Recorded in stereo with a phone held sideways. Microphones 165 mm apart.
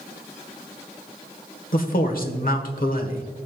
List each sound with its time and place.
1.7 s a man speaking: 60° left (ahead or behind), 1.2 m